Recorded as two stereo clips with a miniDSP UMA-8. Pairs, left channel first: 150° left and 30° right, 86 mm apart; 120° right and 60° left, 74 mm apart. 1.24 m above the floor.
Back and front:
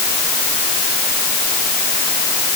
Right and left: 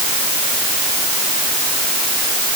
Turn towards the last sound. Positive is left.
No sound to turn to.